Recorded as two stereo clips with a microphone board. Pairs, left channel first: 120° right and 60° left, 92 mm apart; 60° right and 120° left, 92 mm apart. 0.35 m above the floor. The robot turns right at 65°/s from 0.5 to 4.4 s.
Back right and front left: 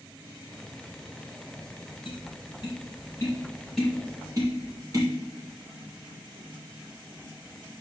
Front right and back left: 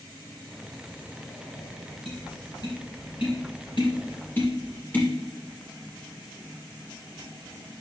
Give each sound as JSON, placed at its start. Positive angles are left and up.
{"t": 2.0, "sound": "tapping", "azimuth_deg": -145, "distance_m": 5.0}